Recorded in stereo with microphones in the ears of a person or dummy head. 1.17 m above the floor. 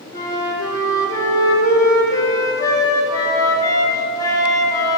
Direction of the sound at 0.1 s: 20° left (ahead or behind).